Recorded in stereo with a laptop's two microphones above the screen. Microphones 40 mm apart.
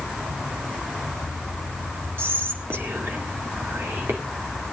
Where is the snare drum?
No snare drum in this recording.